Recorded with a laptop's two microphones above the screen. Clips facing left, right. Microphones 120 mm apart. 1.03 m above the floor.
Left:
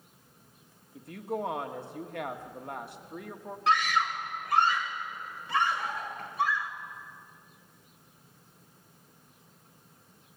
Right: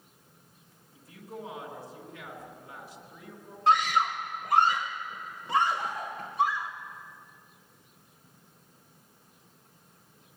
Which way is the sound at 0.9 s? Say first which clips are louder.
Left 9 dB; 55° left (ahead or behind).